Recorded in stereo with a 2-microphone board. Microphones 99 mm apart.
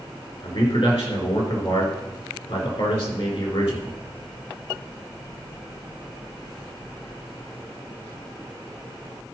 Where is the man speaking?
70° left (ahead or behind), 3.5 m.